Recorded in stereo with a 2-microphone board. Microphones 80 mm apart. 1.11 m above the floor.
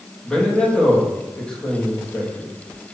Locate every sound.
0.2 s a man speaking: 10° left (ahead or behind), 1.9 m